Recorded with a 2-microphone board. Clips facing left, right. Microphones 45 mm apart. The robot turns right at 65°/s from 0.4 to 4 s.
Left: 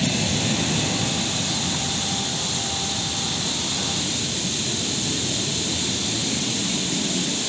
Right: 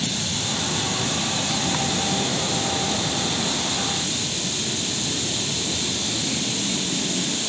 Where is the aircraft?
125° left; by 7.5 s straight ahead.